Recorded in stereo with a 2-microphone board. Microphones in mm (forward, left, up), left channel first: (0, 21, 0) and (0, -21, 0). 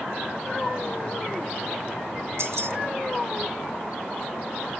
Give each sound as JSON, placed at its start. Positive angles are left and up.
{"t": 2.4, "sound": "keys jangling", "side_deg": -75, "distance_m": 1.1}